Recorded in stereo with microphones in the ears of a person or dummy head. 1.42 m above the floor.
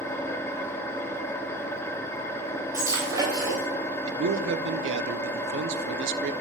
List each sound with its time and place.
0.0 s an engine running: 15° left (ahead or behind), 1.5 m
2.7 s breaking glass: 20° right (ahead or behind), 3.5 m
4.1 s a man speaking: 75° right (ahead or behind), 0.9 m